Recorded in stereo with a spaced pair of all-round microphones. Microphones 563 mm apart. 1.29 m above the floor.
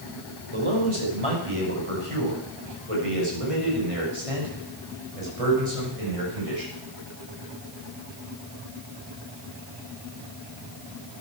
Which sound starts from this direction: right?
A man speaking, at 0.5 s.